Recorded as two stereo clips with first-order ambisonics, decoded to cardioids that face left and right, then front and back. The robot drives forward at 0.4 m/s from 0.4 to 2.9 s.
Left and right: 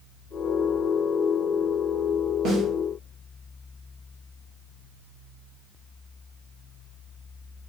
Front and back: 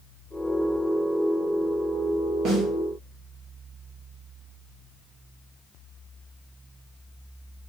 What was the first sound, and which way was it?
A snare drum, 140° right.